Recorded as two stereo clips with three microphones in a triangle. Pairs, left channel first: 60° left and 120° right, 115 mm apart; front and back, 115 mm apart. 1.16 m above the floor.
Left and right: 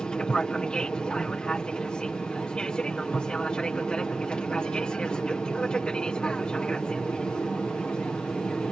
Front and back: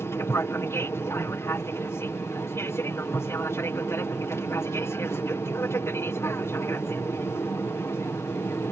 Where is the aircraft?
10° right.